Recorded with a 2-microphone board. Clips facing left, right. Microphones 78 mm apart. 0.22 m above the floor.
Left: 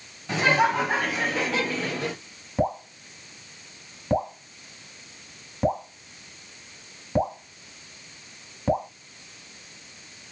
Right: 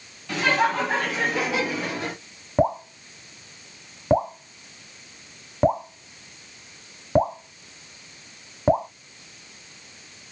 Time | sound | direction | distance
0.3 | laughter | 20° left (ahead or behind) | 1.2 m
2.6 | dripping | 35° right (ahead or behind) | 1.0 m